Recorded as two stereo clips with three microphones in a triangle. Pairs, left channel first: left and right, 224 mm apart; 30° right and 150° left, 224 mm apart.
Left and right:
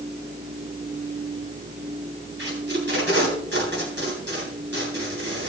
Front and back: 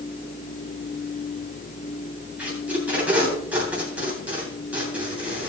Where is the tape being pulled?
125° right, 8.5 m.